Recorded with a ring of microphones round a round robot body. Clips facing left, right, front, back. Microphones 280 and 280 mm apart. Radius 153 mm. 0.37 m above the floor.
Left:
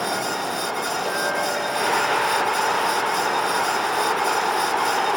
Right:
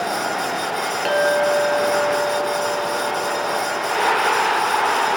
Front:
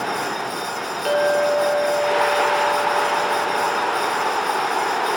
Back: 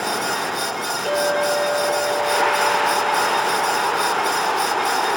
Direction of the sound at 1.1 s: 65° right.